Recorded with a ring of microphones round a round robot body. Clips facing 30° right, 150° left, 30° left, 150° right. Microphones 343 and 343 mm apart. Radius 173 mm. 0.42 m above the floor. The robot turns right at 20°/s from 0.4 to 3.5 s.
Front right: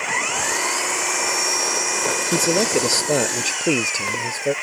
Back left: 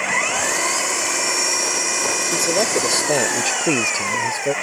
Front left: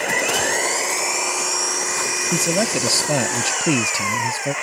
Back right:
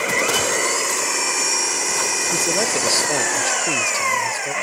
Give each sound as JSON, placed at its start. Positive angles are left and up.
{"t": 0.0, "sound": "an engine running", "azimuth_deg": 125}
{"t": 2.3, "sound": "a man speaking", "azimuth_deg": 40}